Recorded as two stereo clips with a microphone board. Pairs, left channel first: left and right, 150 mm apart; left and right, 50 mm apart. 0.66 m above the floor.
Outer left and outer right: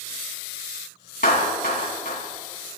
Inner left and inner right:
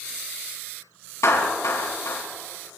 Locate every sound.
1.2 s a clap: 85° left, 4 m